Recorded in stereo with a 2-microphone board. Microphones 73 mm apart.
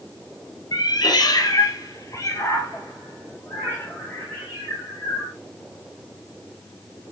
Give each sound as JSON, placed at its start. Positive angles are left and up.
{"t": 0.7, "sound": "a cat meowing", "side_deg": 70, "distance_m": 0.8}